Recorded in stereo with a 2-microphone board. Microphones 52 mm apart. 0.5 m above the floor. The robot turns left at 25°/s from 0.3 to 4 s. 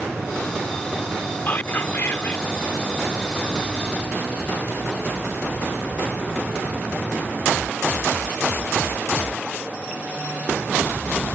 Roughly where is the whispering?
Left.